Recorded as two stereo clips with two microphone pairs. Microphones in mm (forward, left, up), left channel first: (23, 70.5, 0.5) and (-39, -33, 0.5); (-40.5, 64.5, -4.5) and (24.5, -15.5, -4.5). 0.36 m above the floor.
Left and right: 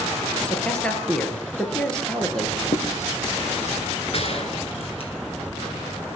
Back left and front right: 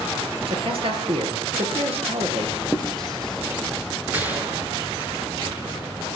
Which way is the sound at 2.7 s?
45° left.